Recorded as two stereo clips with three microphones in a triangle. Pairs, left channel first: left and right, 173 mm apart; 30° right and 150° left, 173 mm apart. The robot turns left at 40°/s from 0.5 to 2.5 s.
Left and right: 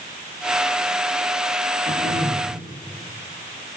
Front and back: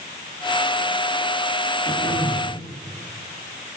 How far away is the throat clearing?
About 8.5 m.